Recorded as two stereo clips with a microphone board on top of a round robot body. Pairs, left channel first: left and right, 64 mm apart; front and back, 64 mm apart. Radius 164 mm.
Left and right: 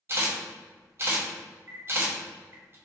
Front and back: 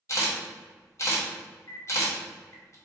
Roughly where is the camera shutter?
Ahead right.